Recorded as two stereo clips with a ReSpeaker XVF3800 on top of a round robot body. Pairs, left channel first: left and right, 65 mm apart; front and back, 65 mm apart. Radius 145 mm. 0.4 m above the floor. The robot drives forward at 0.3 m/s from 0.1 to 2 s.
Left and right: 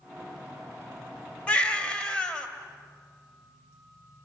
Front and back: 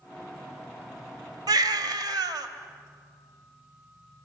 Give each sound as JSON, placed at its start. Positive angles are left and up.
{"t": 1.5, "sound": "a baby crying", "azimuth_deg": 160, "distance_m": 1.2}